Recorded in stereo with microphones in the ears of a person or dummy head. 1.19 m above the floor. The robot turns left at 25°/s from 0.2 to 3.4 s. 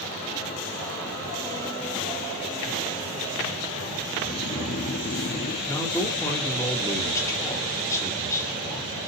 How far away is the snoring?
About 0.6 m.